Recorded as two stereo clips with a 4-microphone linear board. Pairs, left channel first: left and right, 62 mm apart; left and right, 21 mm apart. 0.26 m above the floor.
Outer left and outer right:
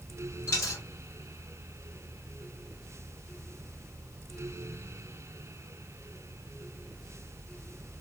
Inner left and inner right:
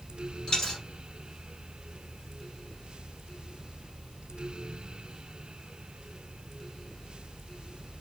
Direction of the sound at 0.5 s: 45° left (ahead or behind).